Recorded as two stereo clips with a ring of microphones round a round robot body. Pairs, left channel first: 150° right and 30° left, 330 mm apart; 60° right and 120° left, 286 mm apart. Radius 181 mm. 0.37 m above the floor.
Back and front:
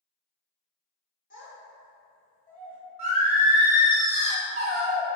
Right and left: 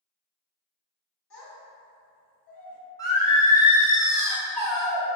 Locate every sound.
1.3 s a child speaking: 90° right, 1.3 m
3.0 s singing: straight ahead, 1.2 m